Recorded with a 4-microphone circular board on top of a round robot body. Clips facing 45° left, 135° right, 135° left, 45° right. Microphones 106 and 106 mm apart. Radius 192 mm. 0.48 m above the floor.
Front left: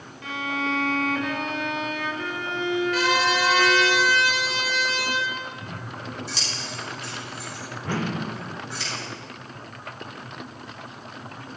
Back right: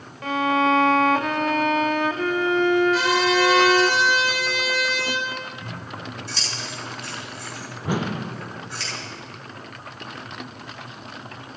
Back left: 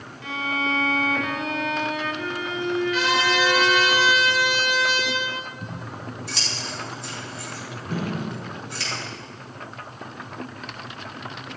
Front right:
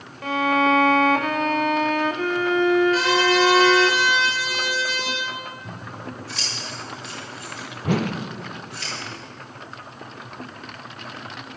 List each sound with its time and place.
0.2 s a violin: 90° right, 0.6 m
2.9 s a trumpet: 5° left, 3.5 m
5.6 s scissors: 125° left, 7 m
7.8 s a whoosh: 60° right, 0.9 m